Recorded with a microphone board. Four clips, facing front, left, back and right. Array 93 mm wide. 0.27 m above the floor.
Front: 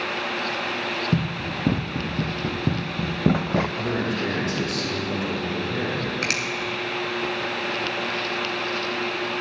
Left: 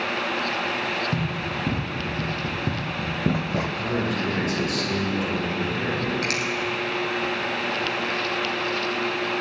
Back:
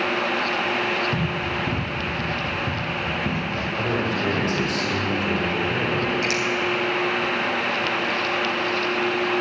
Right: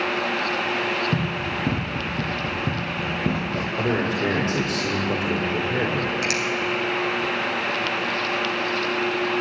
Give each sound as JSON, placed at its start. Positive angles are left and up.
{"t": 1.1, "sound": "running footsteps", "azimuth_deg": -20, "distance_m": 2.0}
{"t": 3.8, "sound": "a man speaking", "azimuth_deg": -80, "distance_m": 6.0}
{"t": 6.2, "sound": "a finger snap", "azimuth_deg": -10, "distance_m": 2.0}